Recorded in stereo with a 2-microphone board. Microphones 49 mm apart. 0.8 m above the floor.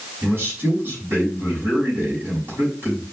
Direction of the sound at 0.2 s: 45° right (ahead or behind).